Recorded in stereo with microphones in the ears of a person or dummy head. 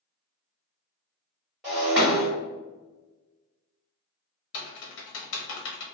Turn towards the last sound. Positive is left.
turn(degrees=80)